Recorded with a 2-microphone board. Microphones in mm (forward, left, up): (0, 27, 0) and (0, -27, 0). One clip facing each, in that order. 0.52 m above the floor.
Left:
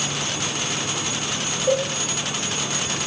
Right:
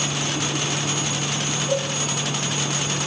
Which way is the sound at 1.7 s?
90° left.